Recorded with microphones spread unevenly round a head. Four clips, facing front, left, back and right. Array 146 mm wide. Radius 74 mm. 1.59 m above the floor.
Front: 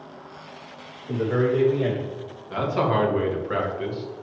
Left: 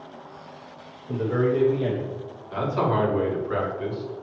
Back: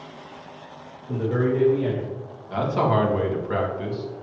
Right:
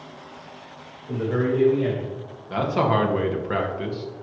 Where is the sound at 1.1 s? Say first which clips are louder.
Even, front 1 dB; 20° right, 3 m; by 2.1 s 10° left, 2.5 m.